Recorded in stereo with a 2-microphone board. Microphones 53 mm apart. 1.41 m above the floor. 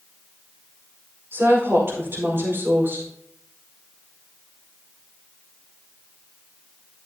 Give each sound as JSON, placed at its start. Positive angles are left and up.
{"t": 1.3, "sound": "a woman speaking", "side_deg": -50, "distance_m": 5.0}